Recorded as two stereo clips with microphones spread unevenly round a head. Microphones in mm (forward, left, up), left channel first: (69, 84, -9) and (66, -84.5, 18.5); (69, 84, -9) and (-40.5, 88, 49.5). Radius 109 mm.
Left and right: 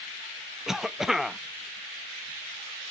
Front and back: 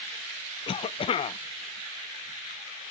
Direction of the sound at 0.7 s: Straight ahead.